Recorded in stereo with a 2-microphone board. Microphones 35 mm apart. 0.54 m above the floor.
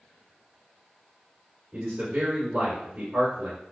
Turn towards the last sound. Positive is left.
turn(degrees=-50)  # may be behind; listen again after turning